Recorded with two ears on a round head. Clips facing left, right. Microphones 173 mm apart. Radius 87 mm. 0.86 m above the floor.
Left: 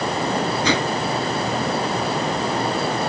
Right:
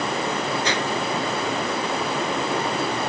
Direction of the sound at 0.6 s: 70° left (ahead or behind).